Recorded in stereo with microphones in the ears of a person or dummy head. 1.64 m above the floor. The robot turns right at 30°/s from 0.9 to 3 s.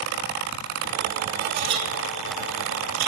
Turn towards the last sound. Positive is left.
turn(degrees=-80)